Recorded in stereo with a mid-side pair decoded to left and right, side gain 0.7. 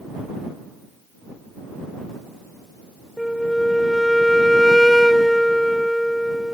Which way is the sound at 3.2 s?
Straight ahead.